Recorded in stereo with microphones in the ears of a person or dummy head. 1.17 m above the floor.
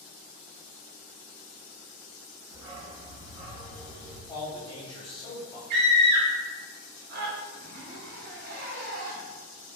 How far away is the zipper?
About 0.6 m.